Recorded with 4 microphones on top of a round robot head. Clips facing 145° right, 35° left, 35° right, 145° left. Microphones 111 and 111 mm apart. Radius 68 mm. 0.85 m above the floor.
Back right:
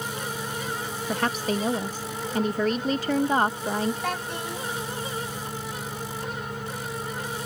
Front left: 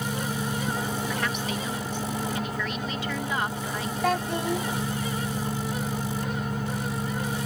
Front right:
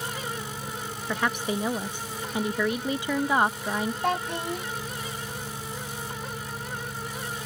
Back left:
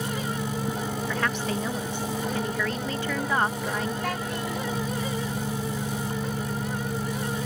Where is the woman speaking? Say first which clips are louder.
Back right 3 dB, front right 3 dB; 105° right.